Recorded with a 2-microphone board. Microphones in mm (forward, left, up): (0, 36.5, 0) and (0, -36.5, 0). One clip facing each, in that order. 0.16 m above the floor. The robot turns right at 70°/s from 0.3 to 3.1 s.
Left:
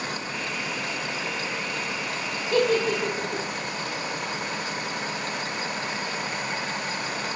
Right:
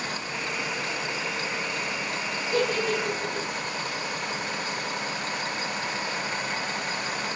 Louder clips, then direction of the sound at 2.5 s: Left 4 dB; 70° left (ahead or behind).